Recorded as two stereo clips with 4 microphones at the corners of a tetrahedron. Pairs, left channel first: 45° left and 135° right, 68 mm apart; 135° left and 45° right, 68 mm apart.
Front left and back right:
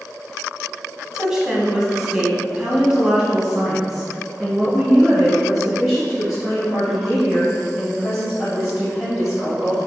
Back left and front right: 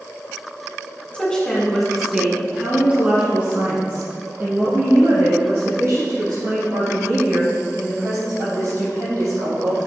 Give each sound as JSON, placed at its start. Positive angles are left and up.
{"t": 1.1, "sound": "a woman speaking", "azimuth_deg": 165, "distance_m": 1.7}